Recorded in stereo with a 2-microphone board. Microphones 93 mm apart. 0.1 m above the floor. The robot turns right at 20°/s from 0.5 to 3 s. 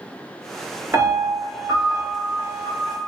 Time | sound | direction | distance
0.9 | a piano | 25° right (ahead or behind) | 1.4 m